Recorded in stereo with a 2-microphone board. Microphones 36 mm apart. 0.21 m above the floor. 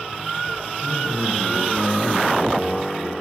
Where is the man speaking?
15° left (ahead or behind), 3 m.